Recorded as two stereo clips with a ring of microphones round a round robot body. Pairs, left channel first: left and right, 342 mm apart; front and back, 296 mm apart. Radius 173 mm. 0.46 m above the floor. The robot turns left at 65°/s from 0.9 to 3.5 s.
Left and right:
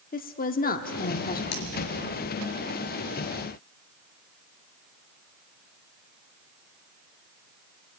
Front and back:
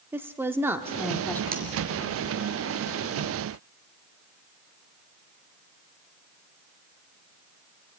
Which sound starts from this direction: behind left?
Cutlery clinking, at 1.5 s.